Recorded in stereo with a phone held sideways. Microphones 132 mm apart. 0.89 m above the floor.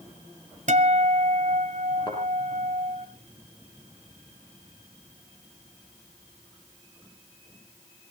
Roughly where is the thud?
Left.